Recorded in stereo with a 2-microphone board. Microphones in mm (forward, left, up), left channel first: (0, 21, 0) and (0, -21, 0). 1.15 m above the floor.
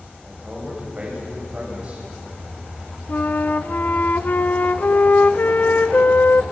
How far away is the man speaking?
About 7 m.